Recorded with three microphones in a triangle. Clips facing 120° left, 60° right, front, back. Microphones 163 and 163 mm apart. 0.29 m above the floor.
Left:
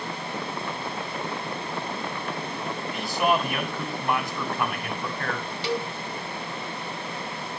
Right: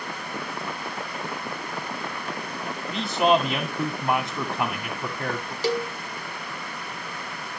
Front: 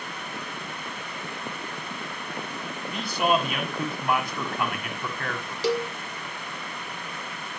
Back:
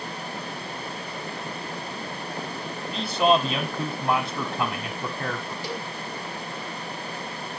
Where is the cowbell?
10° right, 0.6 m.